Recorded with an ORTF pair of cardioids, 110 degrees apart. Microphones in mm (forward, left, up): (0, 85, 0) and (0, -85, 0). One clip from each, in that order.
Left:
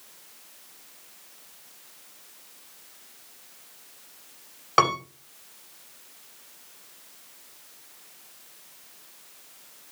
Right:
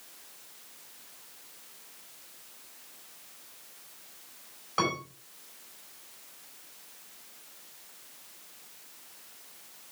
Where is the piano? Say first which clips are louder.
Left 9 dB; 65° left, 3.5 m.